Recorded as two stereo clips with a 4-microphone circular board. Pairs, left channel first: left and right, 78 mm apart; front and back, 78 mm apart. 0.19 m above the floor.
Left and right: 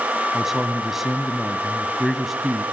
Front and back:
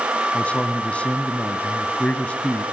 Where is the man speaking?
10° right, 1.2 m.